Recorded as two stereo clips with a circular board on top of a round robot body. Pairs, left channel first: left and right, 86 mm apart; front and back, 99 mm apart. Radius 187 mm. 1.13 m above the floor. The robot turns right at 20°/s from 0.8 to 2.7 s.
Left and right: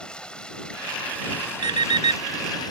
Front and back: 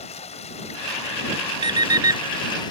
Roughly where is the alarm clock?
Behind right.